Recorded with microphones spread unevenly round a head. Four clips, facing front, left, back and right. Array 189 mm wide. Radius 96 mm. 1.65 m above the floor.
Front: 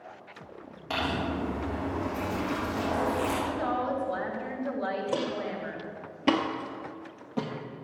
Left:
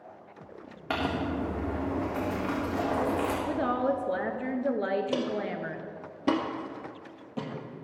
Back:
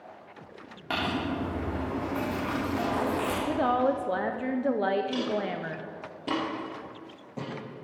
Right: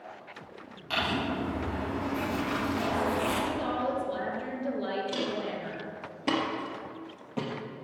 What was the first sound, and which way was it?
Crumpling, 105° left.